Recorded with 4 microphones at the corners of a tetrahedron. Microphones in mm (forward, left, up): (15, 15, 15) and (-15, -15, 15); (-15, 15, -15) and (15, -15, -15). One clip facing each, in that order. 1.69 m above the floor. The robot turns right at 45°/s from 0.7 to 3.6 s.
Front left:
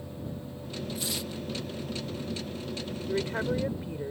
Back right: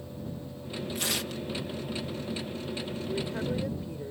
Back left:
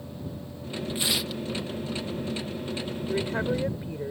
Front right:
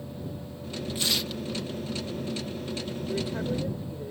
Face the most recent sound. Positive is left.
turn(degrees=105)